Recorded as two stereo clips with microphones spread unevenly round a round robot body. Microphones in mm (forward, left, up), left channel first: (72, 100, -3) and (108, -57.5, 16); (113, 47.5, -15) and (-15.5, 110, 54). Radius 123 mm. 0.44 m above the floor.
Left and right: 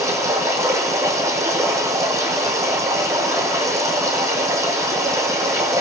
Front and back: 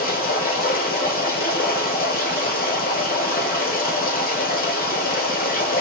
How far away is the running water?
About 4 m.